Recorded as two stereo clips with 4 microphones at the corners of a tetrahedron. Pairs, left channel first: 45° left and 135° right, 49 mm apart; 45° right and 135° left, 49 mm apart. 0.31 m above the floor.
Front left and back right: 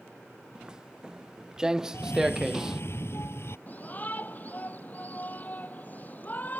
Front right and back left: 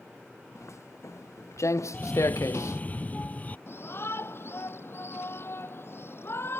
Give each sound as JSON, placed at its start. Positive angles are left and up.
{"t": 0.6, "sound": "footsteps", "azimuth_deg": -60}
{"t": 1.9, "sound": "a cough", "azimuth_deg": 10}
{"t": 3.7, "sound": "a shout", "azimuth_deg": -10}